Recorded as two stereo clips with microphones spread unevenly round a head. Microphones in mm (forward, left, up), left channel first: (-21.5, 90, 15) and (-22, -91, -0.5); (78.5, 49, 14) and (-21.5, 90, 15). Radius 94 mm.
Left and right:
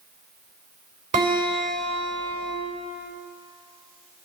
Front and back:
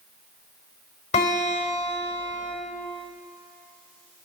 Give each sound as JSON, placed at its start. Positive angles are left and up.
{"t": 1.1, "sound": "a guitar", "azimuth_deg": -35, "distance_m": 3.0}